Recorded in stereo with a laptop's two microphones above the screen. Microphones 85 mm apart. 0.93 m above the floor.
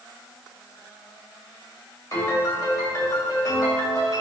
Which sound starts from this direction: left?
A piano, at 2.1 s.